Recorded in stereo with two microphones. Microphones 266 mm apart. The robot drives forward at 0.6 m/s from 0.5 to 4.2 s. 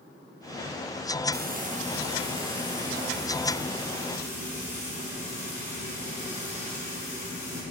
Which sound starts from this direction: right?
Frying, at 1.3 s.